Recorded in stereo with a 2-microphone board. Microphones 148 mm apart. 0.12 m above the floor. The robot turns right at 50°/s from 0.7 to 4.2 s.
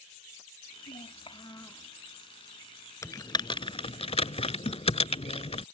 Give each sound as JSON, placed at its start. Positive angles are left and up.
{"t": 0.9, "sound": "a child speaking", "azimuth_deg": 120}
{"t": 3.0, "sound": "typing on a keyboard", "side_deg": 20}